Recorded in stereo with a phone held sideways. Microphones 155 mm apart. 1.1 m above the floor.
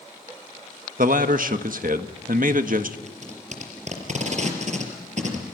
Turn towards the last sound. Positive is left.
turn(degrees=-50)  # may be behind; listen again after turning